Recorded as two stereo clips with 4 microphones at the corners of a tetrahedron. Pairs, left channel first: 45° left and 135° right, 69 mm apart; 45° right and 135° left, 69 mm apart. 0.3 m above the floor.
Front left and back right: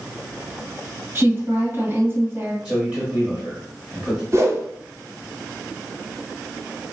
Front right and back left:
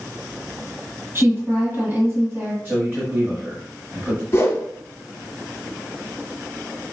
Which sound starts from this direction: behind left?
A man speaking, at 2.6 s.